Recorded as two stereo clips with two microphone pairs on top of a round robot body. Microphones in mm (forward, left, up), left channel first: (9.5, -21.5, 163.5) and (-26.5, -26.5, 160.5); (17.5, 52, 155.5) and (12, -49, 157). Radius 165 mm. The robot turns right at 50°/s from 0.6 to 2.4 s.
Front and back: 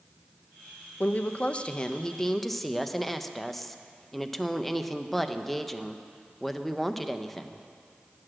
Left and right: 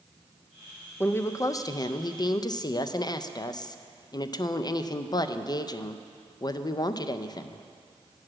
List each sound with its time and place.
1.0 s a woman speaking: 25° left, 0.6 m; by 7.7 s 95° left, 0.6 m